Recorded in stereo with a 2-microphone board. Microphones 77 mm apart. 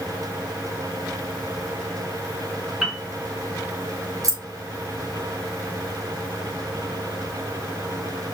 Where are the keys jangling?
45° right (ahead or behind), 0.7 m.